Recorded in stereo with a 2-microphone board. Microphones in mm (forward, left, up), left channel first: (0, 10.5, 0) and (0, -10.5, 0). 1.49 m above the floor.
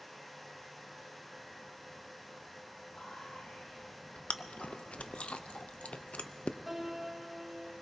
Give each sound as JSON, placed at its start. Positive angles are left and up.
{"t": 2.9, "sound": "whispering", "side_deg": 60, "distance_m": 4.0}
{"t": 4.3, "sound": "chewing", "side_deg": 70, "distance_m": 0.5}
{"t": 6.7, "sound": "a piano", "side_deg": 0, "distance_m": 2.0}